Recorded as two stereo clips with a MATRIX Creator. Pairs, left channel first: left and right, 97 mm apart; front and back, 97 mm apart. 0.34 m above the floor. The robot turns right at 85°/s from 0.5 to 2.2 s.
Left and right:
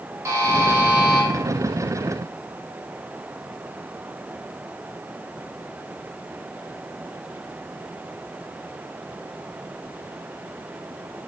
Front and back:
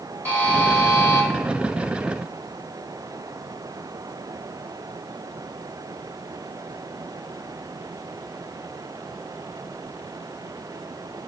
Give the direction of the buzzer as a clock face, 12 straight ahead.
2 o'clock.